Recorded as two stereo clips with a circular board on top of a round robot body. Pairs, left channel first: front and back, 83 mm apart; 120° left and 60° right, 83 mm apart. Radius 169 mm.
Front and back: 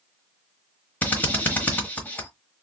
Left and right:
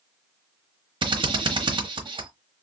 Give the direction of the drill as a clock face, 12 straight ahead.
2 o'clock.